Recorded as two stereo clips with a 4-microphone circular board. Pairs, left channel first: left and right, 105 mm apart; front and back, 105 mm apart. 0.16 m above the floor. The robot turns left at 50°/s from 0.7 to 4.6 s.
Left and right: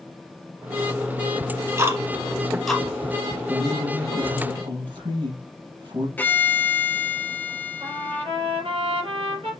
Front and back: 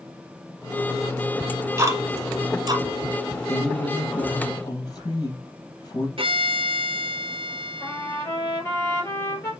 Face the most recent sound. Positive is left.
turn(degrees=-60)